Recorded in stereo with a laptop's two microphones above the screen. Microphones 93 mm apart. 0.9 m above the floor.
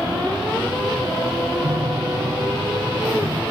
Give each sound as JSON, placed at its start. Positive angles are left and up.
{"t": 1.6, "sound": "a piano", "side_deg": -55}